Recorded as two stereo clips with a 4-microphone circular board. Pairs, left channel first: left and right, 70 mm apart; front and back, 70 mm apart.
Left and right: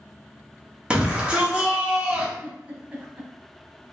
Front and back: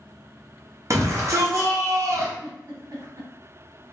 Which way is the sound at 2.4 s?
155° right.